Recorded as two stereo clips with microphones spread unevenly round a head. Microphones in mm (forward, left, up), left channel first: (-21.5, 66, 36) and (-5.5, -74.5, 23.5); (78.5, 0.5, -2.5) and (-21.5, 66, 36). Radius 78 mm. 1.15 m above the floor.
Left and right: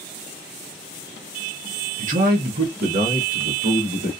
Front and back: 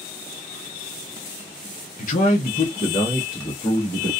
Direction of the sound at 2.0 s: 40° right.